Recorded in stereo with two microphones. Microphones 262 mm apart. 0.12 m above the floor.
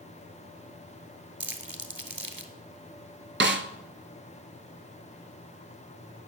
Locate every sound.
1.4 s crumpling: 50° right (ahead or behind), 1.0 m
3.4 s a snare drum: 50° right (ahead or behind), 0.6 m